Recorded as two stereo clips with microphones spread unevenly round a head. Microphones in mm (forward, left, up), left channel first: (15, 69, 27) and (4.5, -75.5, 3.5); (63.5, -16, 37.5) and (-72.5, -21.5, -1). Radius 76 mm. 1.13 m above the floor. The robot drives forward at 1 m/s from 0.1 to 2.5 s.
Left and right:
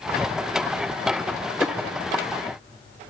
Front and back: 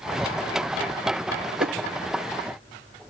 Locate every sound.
1.6 s a whoosh: 155° left, 1.4 m; by 1.8 s 160° left, 1.6 m